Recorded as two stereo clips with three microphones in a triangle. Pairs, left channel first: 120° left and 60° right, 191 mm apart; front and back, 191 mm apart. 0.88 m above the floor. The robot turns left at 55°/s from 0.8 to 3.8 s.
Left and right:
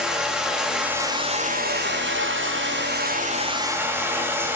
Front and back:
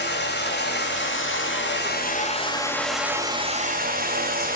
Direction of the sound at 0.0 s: 25° left.